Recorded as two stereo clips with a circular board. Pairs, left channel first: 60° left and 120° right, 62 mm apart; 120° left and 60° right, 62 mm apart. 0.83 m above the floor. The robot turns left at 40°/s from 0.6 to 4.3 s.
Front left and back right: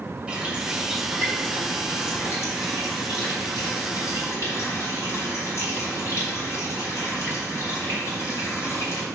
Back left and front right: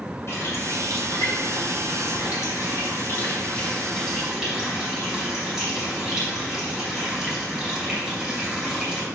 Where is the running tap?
165° left, 2.5 m; by 9.1 s 20° left, 2.5 m.